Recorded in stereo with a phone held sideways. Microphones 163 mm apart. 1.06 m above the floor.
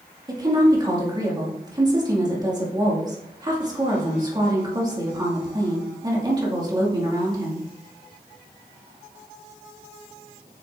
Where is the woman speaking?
25° right (ahead or behind), 2.5 m.